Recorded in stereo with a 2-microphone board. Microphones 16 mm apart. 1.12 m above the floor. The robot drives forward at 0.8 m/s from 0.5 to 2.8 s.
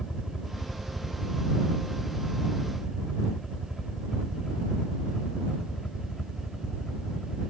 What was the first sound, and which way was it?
A helicopter, 50° left (ahead or behind).